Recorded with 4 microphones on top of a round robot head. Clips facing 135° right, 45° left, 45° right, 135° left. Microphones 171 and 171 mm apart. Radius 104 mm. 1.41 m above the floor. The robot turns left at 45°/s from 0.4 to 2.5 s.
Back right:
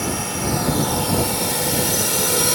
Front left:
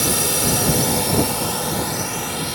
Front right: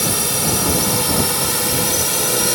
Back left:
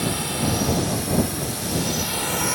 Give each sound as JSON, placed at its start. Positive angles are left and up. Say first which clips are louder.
{"t": 0.0, "sound": "a drone", "louder": "front left 2 dB, front right 2 dB", "azimuth_deg": -5}